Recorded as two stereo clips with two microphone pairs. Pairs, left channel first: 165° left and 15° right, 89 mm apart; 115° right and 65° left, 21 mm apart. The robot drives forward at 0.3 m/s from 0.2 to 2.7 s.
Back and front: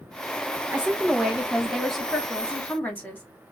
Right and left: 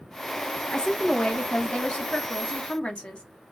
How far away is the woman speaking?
About 0.9 m.